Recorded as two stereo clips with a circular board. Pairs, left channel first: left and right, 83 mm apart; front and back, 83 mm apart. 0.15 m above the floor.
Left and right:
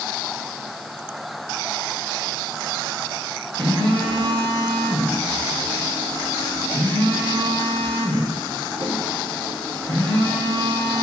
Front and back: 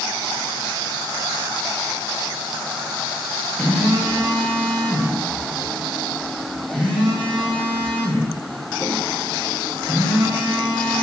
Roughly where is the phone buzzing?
Right.